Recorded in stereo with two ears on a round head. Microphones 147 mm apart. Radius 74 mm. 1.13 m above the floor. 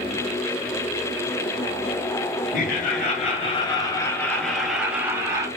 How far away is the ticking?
No ticking in this recording.